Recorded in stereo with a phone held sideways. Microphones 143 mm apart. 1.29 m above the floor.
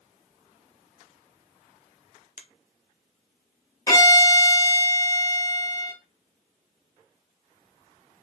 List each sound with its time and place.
2.4 s a finger snap: 60° left (ahead or behind), 0.6 m
3.9 s a violin: 25° left (ahead or behind), 1.5 m